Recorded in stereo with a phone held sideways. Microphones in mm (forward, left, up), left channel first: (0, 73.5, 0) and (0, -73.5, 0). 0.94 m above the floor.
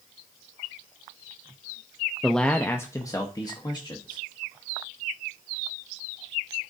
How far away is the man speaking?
About 0.5 m.